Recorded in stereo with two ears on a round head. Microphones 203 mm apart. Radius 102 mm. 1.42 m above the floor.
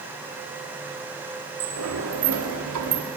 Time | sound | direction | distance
1.6 | a sliding door | 75° right (ahead or behind) | 2 m